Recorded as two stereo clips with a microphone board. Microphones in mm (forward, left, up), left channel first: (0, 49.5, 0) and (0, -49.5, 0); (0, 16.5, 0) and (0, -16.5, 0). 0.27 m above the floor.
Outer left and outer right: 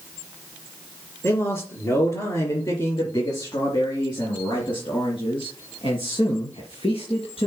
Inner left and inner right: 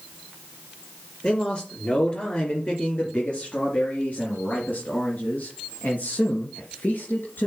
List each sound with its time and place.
1.2 s a man speaking: 30° left (ahead or behind), 4 m; by 7.5 s 75° left (ahead or behind), 3.5 m